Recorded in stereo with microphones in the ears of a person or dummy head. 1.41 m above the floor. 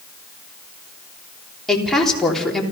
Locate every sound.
1.7 s a woman speaking: centre (ahead or behind), 3 m